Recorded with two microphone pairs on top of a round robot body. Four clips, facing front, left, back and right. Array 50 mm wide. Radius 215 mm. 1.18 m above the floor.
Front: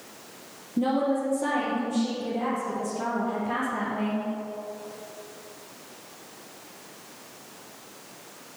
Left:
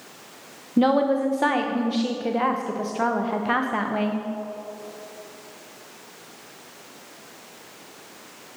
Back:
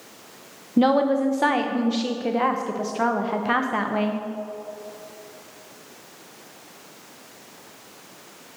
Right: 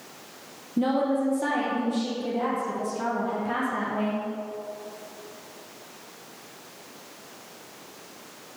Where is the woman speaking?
145° left, 0.7 m.